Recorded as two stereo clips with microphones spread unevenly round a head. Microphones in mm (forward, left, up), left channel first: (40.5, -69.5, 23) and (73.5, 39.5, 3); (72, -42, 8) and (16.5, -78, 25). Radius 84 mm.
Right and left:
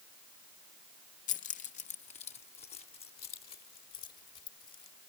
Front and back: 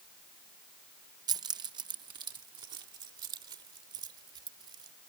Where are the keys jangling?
145° right; by 4.9 s 170° right.